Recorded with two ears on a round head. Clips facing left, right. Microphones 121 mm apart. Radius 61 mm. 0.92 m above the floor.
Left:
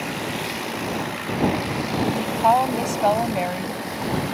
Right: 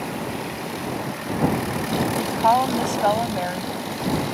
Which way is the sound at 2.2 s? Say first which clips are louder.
Even; 5° left (ahead or behind).